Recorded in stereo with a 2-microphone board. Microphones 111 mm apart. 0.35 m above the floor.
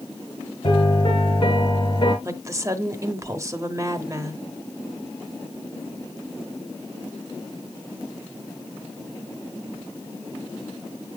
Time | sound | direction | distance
0.6 | a piano | 45° left (ahead or behind) | 2.5 m
2.2 | a woman speaking | 25° right (ahead or behind) | 1.1 m